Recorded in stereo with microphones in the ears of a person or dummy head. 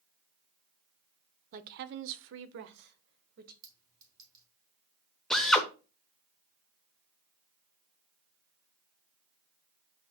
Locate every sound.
1.5 s a woman speaking: 40° right (ahead or behind), 0.7 m; by 3.5 s 55° right (ahead or behind), 1.3 m
3.6 s a clink: 20° right (ahead or behind), 2.5 m
5.3 s a drill: centre (ahead or behind), 1.1 m